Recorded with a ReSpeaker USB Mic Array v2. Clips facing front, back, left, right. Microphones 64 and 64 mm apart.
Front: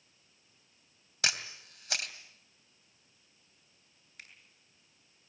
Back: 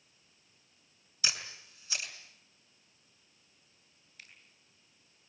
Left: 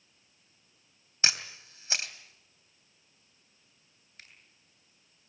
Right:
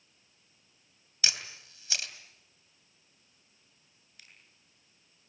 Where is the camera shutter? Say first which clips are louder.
Front 3 dB, left 3 dB; 30° left, 2.5 m.